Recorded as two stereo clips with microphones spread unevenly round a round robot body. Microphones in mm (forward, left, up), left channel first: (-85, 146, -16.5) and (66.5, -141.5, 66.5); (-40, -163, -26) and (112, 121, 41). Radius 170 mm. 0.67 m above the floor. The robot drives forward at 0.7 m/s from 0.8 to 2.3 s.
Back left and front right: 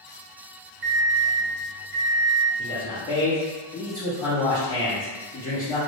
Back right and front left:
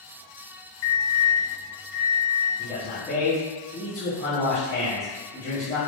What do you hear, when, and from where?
0.8 s an alarm clock: 115° right, 0.6 m; by 2.5 s 155° right, 1.4 m
2.6 s a man speaking: 175° left, 1.0 m